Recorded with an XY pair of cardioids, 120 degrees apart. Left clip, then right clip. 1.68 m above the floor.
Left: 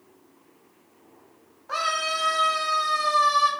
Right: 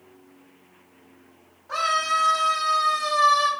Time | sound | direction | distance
1.7 | a scream | 40° left | 1.0 m